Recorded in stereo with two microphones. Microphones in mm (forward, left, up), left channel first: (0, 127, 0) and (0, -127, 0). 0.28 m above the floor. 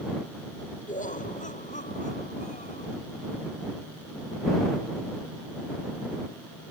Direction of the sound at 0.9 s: 30° left (ahead or behind).